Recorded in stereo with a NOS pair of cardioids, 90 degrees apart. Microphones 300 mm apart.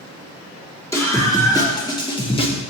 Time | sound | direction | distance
0.9 | a scream | 10° left | 2.5 m